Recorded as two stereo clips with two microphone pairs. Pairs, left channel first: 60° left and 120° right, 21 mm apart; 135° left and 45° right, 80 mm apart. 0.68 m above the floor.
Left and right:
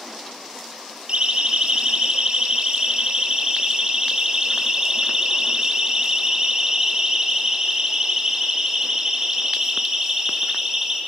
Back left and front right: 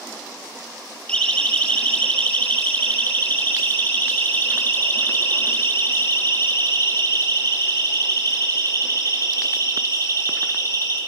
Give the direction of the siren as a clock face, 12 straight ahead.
5 o'clock.